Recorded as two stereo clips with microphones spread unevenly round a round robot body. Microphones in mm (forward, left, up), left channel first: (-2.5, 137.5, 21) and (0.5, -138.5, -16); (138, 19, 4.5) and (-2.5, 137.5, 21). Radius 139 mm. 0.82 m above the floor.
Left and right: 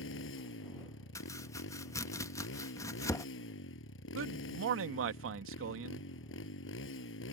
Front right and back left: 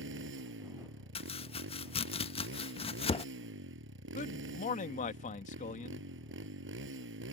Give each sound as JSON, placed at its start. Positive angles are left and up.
{"t": 0.0, "sound": "a motorcycle", "azimuth_deg": 135}
{"t": 1.1, "sound": "chopping", "azimuth_deg": 5}
{"t": 4.2, "sound": "a man speaking", "azimuth_deg": -75}